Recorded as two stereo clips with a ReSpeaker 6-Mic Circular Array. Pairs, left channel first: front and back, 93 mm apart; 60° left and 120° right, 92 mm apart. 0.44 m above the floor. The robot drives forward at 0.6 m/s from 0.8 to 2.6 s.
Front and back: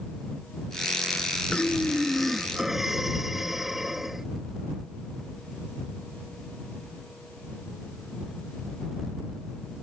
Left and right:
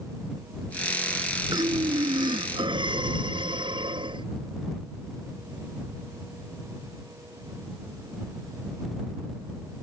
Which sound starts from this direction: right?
Breathing, at 1.5 s.